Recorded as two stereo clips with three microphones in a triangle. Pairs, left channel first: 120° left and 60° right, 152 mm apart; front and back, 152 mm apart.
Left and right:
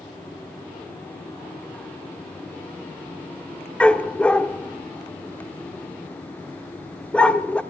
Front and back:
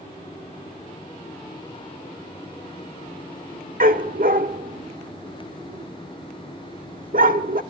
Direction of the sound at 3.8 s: 160° right.